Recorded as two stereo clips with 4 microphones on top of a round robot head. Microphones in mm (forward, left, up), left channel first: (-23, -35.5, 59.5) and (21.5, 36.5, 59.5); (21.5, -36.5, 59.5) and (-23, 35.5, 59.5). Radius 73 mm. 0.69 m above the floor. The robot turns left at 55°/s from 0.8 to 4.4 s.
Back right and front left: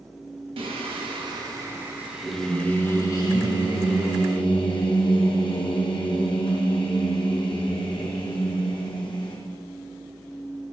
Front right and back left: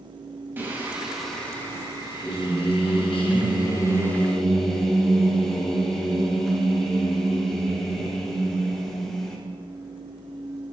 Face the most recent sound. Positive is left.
turn(degrees=-145)